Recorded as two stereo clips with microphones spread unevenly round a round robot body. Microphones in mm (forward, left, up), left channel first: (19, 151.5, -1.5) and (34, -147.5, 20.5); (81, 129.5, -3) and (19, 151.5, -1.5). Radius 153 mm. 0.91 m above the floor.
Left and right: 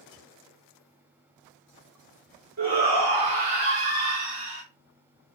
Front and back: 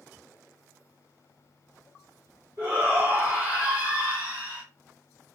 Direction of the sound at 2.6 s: 145° right.